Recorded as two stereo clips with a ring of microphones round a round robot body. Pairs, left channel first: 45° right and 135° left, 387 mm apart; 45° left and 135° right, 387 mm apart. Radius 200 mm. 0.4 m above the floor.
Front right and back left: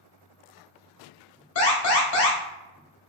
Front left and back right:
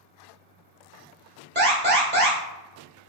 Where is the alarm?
80° right, 1.4 m.